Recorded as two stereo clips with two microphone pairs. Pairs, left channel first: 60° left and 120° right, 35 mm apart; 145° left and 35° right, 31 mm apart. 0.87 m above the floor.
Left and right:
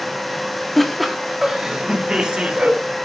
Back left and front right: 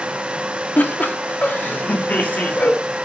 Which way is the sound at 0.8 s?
145° left.